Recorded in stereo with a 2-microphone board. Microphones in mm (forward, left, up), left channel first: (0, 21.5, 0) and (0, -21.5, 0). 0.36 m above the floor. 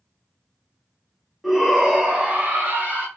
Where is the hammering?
No hammering in this recording.